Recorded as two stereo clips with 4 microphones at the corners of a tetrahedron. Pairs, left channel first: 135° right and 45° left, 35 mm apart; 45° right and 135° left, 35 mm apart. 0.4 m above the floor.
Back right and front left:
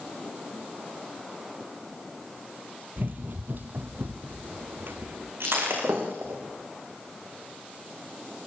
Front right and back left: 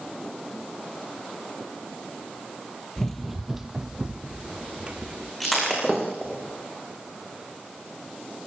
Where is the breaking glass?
45° left, 6.5 m.